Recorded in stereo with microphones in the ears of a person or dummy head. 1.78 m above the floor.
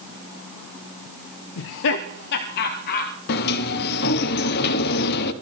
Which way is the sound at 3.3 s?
60° left (ahead or behind).